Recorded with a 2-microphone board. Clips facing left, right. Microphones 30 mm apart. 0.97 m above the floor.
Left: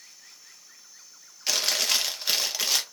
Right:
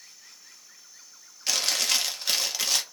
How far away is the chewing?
About 0.6 m.